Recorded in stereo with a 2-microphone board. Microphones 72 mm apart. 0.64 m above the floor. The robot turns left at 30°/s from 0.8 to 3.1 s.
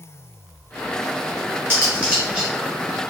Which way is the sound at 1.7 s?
35° right (ahead or behind).